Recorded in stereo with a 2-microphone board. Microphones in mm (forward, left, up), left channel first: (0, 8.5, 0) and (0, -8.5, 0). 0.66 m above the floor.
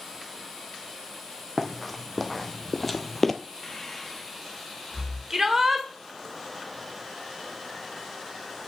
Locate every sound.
1.6 s running footsteps: 5° left (ahead or behind), 1.8 m; by 3.3 s 15° left (ahead or behind), 0.8 m
3.6 s breathing: 15° left (ahead or behind), 1.1 m
5.3 s a shout: 30° right (ahead or behind), 2 m